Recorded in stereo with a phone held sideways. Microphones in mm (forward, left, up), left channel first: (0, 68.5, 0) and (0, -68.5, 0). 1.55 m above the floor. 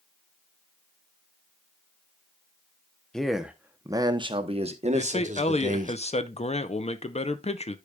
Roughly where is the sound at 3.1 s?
Centre.